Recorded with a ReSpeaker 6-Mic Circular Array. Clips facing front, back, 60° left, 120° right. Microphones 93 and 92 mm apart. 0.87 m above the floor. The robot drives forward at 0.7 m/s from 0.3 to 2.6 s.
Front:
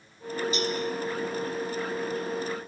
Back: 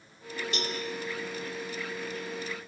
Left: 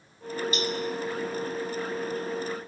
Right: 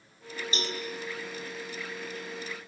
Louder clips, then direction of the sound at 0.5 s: Front 4 dB, left 3 dB; 175° right.